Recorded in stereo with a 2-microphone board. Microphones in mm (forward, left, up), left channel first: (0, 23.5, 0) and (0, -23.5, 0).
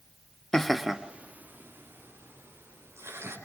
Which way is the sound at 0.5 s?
15° left (ahead or behind).